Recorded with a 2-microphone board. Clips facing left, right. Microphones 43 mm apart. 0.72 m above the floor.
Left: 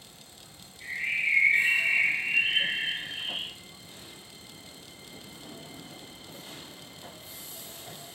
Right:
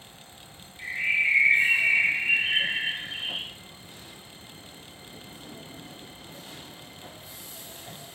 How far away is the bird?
About 1.9 m.